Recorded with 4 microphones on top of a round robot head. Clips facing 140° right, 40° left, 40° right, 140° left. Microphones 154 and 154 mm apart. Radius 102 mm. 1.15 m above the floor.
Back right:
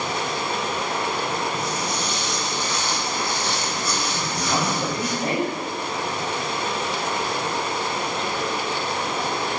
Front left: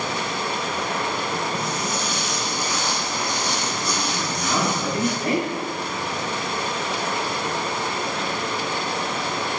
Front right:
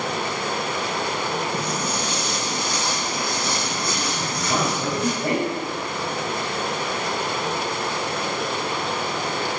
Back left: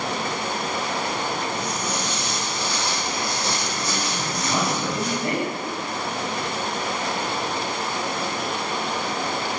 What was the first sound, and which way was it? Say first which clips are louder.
Running water: even, front right 1 dB; 75° right.